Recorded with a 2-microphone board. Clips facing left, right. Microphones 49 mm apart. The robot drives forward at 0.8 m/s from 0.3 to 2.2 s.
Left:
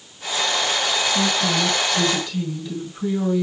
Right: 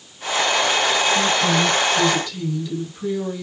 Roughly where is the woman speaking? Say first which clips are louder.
Right 3 dB; centre.